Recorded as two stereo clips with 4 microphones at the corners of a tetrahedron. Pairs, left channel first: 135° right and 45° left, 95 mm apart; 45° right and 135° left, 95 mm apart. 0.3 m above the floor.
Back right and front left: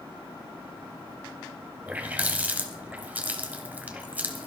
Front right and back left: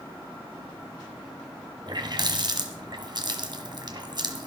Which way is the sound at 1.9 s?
115° left.